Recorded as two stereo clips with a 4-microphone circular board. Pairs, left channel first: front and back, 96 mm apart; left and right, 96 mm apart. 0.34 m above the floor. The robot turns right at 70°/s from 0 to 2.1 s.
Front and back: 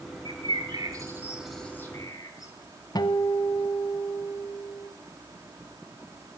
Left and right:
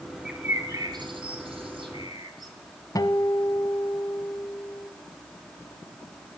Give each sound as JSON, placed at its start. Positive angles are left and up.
{"t": 0.2, "sound": "a bird", "azimuth_deg": -175, "distance_m": 3.0}
{"t": 3.0, "sound": "a guitar", "azimuth_deg": 40, "distance_m": 1.0}